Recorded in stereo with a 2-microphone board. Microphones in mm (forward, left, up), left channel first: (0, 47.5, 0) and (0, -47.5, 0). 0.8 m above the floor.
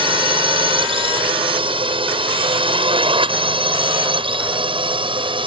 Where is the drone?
65° right (ahead or behind).